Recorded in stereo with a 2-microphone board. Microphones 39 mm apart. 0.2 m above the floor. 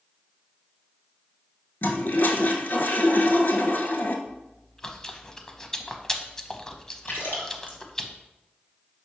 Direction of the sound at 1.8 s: 60° left (ahead or behind).